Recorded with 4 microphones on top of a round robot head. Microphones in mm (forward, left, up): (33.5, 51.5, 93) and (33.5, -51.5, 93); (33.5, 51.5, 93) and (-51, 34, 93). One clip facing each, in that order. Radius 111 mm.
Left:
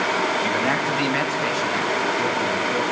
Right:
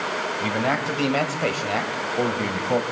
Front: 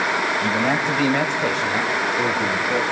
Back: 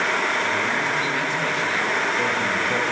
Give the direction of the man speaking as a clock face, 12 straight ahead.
1 o'clock.